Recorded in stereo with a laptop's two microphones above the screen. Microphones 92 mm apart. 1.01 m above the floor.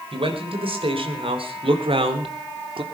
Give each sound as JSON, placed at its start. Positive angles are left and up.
{"t": 0.1, "sound": "a man speaking", "side_deg": -85, "distance_m": 4.5}